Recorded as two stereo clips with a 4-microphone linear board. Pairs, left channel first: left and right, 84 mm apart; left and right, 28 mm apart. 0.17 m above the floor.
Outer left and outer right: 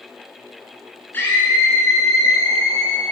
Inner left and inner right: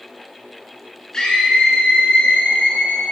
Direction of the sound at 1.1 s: 25° left (ahead or behind).